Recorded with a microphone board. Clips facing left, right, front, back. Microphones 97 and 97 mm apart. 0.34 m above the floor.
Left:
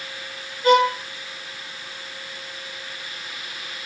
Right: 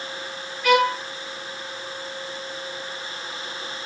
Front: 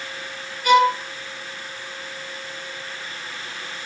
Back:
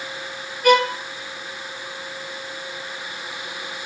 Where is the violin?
150° left, 7 m.